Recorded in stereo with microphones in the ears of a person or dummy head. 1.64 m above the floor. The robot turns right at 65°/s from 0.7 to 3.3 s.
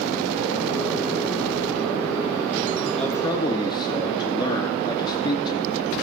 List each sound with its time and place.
3.0 s a man speaking: centre (ahead or behind), 1.1 m; by 6.0 s 20° left (ahead or behind), 1.1 m